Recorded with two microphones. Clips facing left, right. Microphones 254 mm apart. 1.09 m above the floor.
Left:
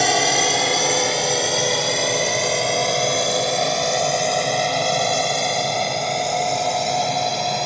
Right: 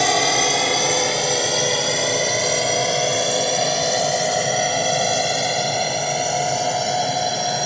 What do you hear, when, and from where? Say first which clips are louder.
0.0 s a drone: even; centre (ahead or behind); by 7.7 s 5° right (ahead or behind)